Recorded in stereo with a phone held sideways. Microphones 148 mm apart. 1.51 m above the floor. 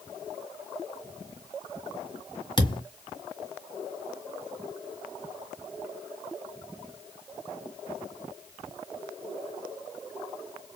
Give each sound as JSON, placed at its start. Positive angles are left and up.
{"t": 2.6, "sound": "a thud", "side_deg": 30, "distance_m": 1.6}